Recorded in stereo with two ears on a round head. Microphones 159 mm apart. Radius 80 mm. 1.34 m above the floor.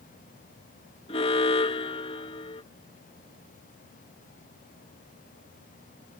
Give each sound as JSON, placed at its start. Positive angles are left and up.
{"t": 1.1, "sound": "an alarm", "side_deg": 35}